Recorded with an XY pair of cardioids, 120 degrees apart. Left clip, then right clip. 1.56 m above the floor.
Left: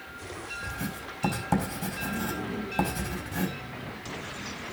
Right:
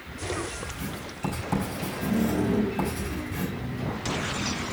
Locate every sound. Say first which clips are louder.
0.6 s writing: even; 30° left, 4.5 m